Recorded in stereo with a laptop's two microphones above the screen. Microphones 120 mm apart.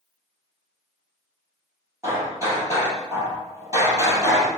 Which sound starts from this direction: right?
Hammering, at 2.0 s.